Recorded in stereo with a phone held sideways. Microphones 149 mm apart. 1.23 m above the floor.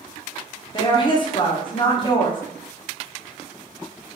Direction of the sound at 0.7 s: 30° left (ahead or behind).